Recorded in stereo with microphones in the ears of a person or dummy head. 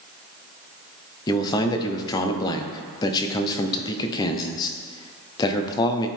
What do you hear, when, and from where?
1.3 s a man speaking: 25° left (ahead or behind), 0.7 m